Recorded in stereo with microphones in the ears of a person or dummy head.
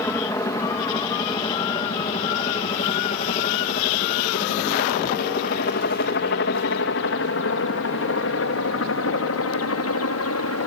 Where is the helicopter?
15° left (ahead or behind); by 10.7 s 70° left (ahead or behind).